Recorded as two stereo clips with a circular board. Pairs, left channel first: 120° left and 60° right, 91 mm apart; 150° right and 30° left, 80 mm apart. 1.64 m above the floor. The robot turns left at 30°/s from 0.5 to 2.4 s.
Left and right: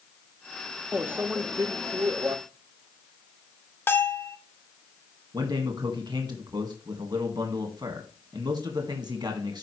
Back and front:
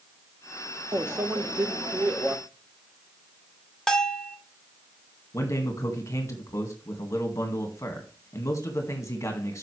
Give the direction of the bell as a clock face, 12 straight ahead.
7 o'clock.